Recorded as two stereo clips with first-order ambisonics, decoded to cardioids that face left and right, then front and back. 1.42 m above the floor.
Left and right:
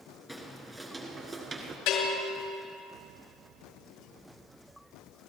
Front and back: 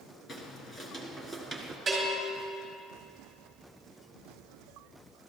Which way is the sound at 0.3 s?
5° right.